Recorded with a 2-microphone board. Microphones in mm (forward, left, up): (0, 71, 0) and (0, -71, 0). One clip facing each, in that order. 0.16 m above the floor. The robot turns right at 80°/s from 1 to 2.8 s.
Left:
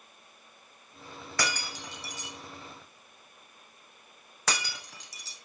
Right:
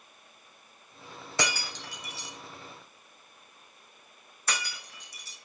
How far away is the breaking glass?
About 3.5 m.